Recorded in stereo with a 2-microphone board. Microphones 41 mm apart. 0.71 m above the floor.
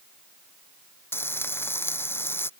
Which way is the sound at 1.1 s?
65° left (ahead or behind).